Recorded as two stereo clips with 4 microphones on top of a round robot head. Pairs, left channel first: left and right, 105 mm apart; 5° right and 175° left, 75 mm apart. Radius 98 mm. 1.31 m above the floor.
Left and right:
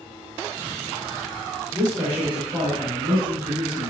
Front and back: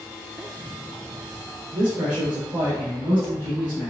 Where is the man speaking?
160° right, 0.8 m; by 3.9 s 165° right, 1.9 m.